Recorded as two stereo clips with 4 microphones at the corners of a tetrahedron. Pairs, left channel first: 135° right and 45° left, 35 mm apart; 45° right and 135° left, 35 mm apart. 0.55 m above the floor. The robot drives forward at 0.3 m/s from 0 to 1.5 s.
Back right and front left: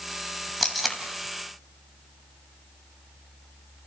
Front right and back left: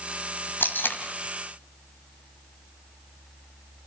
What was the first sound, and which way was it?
Tape being pulled, 40° right.